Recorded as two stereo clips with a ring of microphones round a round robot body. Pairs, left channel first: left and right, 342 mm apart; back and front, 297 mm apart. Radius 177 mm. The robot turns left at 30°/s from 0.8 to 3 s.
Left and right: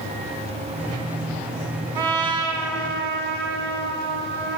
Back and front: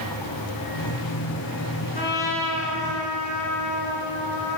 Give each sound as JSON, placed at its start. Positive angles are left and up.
{"t": 1.9, "sound": "a trumpet", "azimuth_deg": -115, "distance_m": 1.1}